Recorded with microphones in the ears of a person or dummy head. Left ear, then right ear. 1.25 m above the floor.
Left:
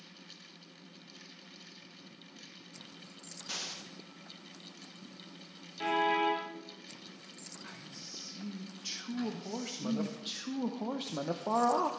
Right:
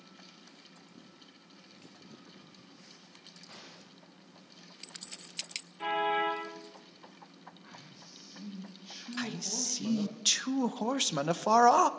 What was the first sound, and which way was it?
An explosion, 80° left.